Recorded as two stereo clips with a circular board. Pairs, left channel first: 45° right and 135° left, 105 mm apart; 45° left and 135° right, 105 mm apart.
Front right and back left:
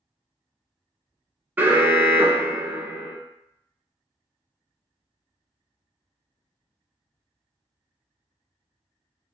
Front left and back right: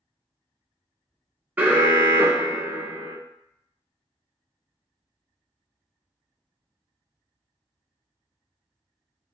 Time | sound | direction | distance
1.6 | an alarm | straight behind | 0.6 m